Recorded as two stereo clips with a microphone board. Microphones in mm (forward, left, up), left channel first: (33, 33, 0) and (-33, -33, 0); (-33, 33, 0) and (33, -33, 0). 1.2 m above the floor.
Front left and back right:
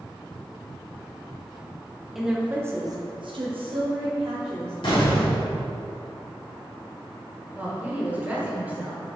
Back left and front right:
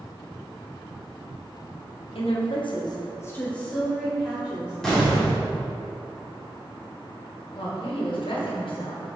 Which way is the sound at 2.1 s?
140° left.